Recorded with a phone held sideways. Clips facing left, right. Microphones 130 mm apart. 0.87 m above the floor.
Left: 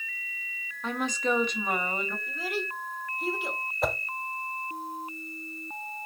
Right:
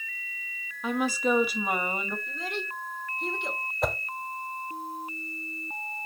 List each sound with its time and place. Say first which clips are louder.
0.8 s a woman speaking: right 3 dB; 5° right (ahead or behind), 1.6 m
2.3 s a child speaking: left 2 dB; 5° left (ahead or behind), 2.0 m
3.8 s a whoosh: even; centre (ahead or behind), 0.7 m